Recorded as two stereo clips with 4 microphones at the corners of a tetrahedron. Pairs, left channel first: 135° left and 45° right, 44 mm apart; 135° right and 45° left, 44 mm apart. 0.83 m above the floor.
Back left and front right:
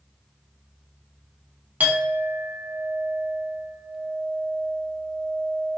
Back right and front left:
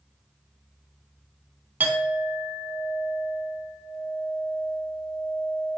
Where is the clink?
Straight ahead, 0.7 m.